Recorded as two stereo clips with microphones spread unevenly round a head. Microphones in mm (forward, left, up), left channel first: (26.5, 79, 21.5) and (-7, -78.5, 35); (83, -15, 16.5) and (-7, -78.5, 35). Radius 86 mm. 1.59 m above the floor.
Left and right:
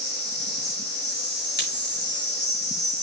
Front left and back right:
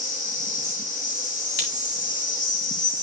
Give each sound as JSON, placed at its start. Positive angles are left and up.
{"t": 0.0, "sound": "an insect", "azimuth_deg": 60, "distance_m": 2.5}
{"t": 1.6, "sound": "a crack", "azimuth_deg": 45, "distance_m": 3.5}